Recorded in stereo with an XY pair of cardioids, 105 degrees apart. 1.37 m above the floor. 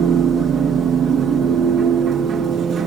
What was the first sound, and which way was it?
A machine running, 60° right.